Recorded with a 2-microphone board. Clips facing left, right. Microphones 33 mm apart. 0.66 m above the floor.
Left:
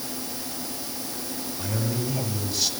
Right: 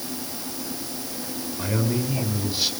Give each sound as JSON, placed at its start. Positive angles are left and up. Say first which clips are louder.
{"t": 1.6, "sound": "a man speaking", "louder": "right 4 dB", "side_deg": -20, "distance_m": 6.0}